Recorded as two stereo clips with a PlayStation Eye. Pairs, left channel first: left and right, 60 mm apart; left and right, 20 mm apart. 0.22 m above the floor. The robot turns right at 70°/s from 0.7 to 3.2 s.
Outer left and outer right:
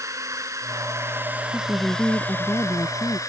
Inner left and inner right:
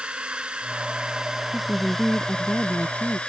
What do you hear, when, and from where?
0.0 s a drone: 60° right (ahead or behind); by 3.3 s 65° left (ahead or behind)
1.5 s a woman speaking: 15° right; by 3.2 s 100° left